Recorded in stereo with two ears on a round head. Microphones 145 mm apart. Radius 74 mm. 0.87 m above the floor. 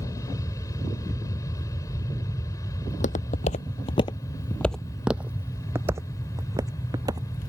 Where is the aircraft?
20° left (ahead or behind).